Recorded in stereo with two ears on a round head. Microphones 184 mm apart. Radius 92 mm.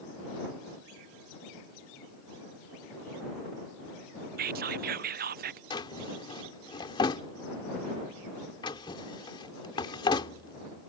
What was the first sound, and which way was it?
Whispering, 50° right (ahead or behind).